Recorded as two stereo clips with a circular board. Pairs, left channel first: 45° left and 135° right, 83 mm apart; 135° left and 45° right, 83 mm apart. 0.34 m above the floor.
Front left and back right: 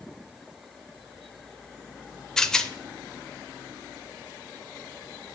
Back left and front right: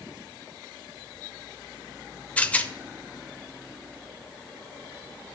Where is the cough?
No cough in this recording.